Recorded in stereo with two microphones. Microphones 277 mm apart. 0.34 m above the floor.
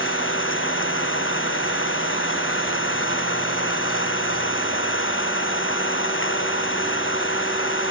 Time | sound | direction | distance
0.0 | an engine running | 45° left (ahead or behind) | ?